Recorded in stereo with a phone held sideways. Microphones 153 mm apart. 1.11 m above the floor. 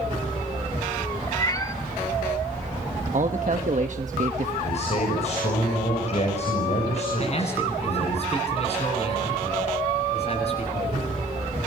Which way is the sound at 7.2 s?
45° left (ahead or behind).